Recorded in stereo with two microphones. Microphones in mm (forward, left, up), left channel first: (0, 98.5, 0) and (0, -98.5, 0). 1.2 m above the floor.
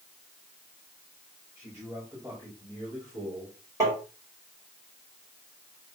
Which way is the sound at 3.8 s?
15° right (ahead or behind).